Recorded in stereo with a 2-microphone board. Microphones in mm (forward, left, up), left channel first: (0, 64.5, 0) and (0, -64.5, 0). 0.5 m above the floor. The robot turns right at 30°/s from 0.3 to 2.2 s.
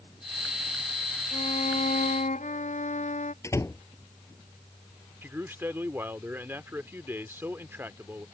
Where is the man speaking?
20° right (ahead or behind).